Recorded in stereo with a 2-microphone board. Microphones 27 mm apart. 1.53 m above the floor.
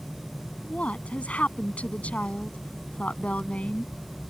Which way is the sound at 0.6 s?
65° left (ahead or behind).